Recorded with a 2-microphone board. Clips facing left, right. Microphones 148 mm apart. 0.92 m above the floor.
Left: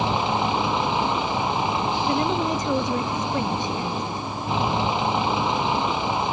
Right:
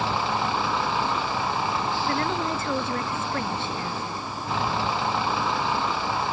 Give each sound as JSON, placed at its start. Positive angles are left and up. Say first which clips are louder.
{"t": 0.0, "sound": "a vehicle", "louder": "left 3 dB", "side_deg": 20}
{"t": 2.1, "sound": "a woman speaking", "louder": "left 5 dB", "side_deg": 15}